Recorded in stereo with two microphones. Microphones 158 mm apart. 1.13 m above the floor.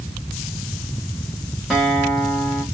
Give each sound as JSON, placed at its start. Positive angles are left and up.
{"t": 1.7, "sound": "a guitar", "side_deg": -5, "distance_m": 1.6}